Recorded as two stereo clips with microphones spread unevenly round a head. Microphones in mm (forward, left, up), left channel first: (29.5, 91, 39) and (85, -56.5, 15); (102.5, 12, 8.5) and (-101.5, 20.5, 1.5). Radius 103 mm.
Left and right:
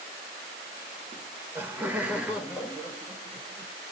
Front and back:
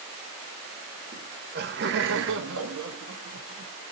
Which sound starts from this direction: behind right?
Laughter, at 1.1 s.